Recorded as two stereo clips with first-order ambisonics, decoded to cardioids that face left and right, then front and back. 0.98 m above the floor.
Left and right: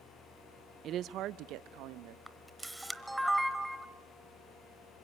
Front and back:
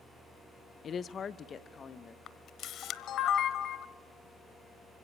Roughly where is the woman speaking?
Ahead right.